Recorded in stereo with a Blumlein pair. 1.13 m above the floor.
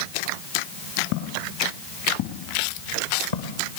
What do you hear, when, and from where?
1.1 s footsteps: 45° left, 6.5 m; by 3.8 s 65° left, 3.5 m